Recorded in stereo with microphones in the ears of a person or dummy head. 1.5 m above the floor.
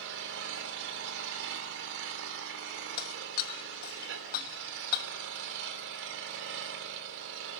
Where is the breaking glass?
55° left (ahead or behind), 1.3 m.